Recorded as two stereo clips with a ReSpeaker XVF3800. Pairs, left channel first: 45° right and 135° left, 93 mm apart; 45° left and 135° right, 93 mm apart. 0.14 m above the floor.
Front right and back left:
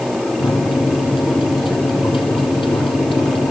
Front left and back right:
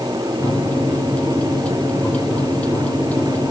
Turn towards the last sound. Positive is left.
turn(degrees=-30)